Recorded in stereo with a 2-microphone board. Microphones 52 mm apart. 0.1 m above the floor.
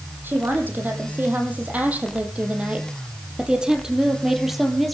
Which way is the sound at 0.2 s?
40° right (ahead or behind).